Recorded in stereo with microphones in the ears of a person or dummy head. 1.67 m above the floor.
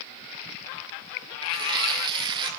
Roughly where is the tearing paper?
Right.